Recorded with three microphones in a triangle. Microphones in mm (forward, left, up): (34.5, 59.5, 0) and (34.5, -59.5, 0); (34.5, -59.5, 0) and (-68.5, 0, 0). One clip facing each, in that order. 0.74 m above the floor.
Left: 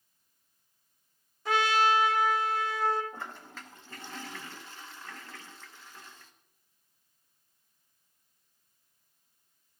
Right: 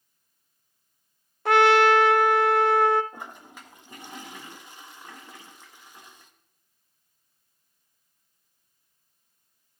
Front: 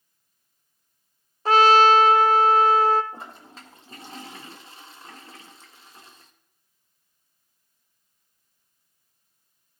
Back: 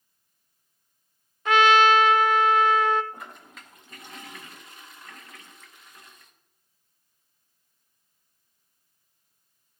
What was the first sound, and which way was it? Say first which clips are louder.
A trumpet: right 8 dB, front 3 dB; 85° right.